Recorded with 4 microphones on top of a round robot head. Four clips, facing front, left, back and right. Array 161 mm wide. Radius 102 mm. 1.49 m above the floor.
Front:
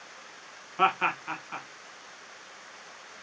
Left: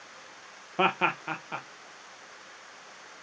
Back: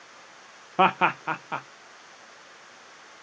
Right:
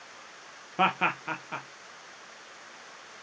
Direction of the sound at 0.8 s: 175° left.